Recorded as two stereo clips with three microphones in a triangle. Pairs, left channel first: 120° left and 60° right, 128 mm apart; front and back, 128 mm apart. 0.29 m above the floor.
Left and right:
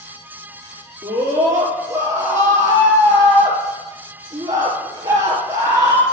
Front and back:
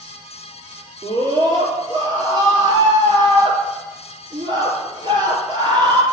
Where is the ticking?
No ticking in this recording.